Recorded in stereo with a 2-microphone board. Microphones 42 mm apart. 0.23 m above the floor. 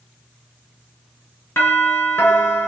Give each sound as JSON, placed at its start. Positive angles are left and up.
{"t": 1.6, "sound": "a doorbell", "side_deg": 65, "distance_m": 4.0}